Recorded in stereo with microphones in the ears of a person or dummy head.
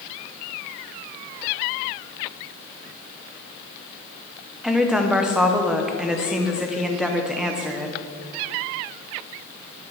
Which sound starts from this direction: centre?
A woman speaking, at 4.6 s.